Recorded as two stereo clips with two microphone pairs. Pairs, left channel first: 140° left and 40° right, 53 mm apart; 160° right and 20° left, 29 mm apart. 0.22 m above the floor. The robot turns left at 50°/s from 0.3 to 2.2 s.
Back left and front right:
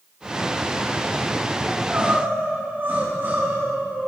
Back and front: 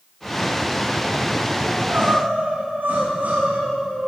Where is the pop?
I don't hear a pop.